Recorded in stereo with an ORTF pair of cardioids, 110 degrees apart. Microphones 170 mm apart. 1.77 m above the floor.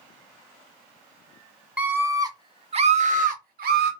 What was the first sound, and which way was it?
A scream, 10° right.